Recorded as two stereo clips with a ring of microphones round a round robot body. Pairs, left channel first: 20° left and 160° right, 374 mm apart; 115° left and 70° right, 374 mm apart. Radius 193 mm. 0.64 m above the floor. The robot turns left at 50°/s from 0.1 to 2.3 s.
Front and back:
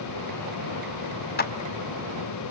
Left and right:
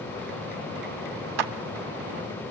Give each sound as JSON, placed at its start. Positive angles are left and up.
{"t": 1.4, "sound": "a clap", "azimuth_deg": -40, "distance_m": 1.7}